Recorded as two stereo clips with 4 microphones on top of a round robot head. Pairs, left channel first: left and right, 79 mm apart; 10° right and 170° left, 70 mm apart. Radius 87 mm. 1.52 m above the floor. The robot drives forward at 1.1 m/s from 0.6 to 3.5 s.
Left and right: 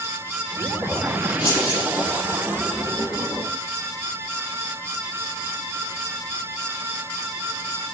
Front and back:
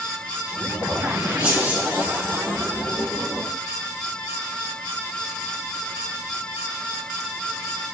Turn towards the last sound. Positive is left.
turn(degrees=115)